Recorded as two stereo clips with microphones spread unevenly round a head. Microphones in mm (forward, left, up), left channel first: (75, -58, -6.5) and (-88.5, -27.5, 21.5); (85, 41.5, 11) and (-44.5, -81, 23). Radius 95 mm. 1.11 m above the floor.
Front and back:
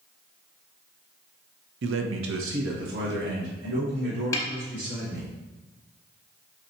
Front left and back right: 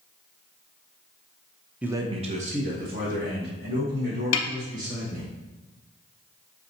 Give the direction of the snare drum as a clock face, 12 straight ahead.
10 o'clock.